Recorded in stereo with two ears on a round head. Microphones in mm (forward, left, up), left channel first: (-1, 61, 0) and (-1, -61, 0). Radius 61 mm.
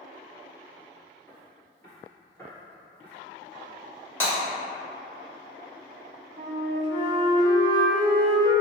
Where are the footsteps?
20° left (ahead or behind), 1.7 m; by 3.1 s 15° left (ahead or behind), 2 m.